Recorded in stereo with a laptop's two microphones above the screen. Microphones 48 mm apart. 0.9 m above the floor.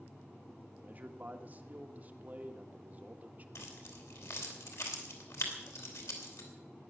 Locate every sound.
0.8 s a man speaking: 35° right (ahead or behind), 1.5 m
3.5 s keys jangling: 80° left, 3 m